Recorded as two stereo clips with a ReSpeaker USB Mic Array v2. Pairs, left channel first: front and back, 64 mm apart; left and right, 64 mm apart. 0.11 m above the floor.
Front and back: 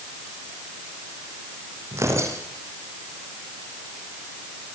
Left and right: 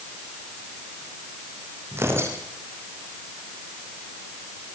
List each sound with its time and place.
1.9 s tearing paper: 140° right, 7 m